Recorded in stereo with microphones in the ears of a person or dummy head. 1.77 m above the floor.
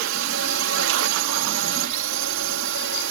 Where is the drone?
65° right (ahead or behind); by 3.1 s 60° right (ahead or behind).